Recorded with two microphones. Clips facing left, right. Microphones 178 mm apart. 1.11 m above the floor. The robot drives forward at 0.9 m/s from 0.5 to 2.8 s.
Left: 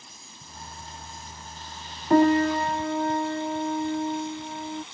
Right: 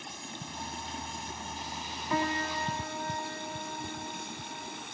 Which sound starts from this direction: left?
A piano, at 2.1 s.